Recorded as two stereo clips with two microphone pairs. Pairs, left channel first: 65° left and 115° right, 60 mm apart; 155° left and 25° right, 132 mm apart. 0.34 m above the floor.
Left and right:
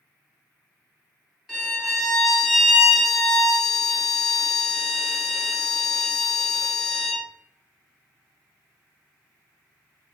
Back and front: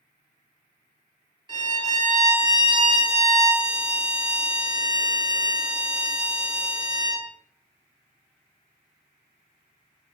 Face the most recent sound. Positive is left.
turn(degrees=-35)